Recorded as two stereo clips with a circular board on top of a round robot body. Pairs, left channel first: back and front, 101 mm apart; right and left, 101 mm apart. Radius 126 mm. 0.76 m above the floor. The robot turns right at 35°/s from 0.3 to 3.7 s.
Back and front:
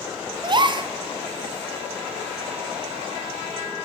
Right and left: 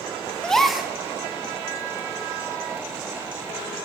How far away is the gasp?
About 0.6 m.